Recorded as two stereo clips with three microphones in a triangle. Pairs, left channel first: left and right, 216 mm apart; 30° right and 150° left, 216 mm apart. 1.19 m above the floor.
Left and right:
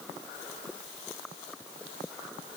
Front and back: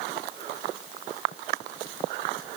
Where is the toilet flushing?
No toilet flushing in this recording.